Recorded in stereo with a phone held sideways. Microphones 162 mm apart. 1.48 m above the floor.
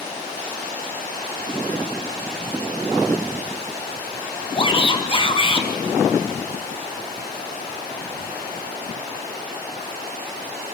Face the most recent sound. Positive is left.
turn(degrees=30)  # may be behind; listen again after turning